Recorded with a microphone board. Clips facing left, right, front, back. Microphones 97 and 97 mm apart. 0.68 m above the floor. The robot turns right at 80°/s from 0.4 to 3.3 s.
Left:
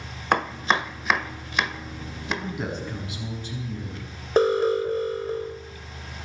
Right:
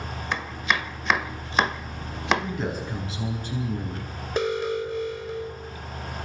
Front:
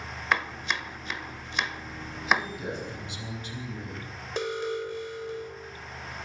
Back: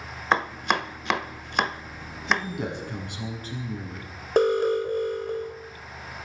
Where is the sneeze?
No sneeze in this recording.